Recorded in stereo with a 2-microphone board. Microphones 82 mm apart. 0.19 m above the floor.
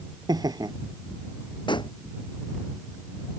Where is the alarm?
No alarm in this recording.